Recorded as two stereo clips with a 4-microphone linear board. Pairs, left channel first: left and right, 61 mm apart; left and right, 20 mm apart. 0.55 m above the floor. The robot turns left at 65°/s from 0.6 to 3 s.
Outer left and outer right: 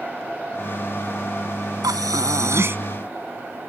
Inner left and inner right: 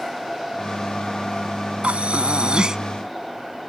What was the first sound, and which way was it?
Breathing, 85° right.